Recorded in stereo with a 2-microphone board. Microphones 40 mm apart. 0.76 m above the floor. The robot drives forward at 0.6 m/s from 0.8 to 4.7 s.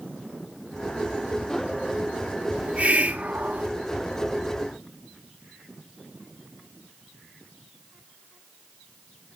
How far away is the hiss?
About 1.5 m.